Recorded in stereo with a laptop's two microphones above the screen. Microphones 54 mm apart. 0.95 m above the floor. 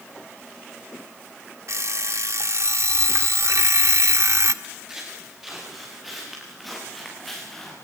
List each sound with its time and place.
1.7 s an alarm clock: 65° right (ahead or behind), 1.4 m
4.6 s footsteps: 10° right (ahead or behind), 8 m; by 7.8 s 5° left (ahead or behind), 6.5 m